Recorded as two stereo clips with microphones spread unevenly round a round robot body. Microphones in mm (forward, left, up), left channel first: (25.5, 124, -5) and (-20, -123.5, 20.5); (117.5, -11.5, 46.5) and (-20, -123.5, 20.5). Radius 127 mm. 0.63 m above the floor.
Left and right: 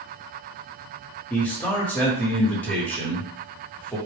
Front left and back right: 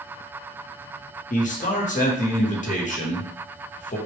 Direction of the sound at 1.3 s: 5° left.